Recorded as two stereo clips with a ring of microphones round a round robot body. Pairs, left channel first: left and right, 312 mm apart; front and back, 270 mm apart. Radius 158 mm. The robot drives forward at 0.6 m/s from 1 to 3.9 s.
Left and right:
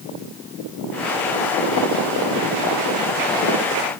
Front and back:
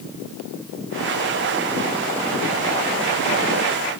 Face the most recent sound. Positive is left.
No sound to turn to.